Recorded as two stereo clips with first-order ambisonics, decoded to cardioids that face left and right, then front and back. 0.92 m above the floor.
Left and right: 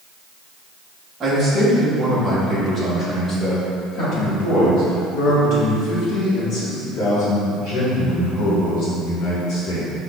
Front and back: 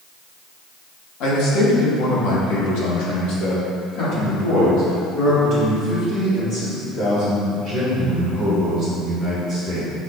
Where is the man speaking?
20° right, 1.8 m; by 9.9 s 60° left, 5.5 m.